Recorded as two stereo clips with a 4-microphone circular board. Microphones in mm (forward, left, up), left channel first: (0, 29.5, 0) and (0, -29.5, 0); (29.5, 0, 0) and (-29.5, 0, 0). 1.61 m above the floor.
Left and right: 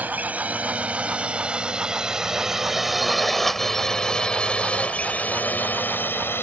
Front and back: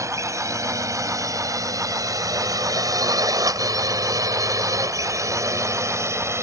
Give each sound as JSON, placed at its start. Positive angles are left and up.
{"t": 0.0, "sound": "a drone", "azimuth_deg": -150}